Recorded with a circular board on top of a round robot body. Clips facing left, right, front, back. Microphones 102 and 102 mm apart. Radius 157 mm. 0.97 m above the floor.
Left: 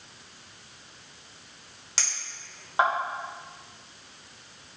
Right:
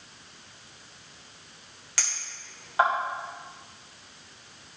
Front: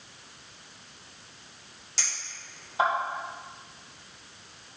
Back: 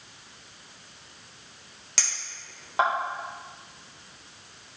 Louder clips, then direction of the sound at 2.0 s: Even, back 2 dB; 155° left.